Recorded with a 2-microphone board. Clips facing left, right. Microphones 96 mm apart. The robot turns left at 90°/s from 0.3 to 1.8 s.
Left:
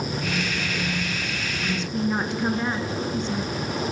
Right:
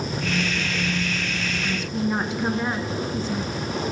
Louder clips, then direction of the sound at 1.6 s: Left 1 dB; 5° left (ahead or behind).